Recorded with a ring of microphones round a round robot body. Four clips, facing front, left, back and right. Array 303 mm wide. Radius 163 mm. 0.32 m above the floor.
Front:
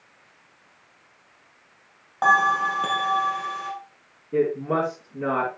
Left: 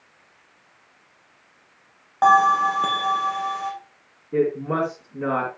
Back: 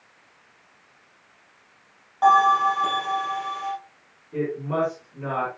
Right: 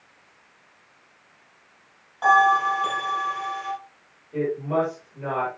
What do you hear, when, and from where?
2.2 s a bell: 65° left, 5.5 m
4.3 s a woman speaking: 60° left, 5.5 m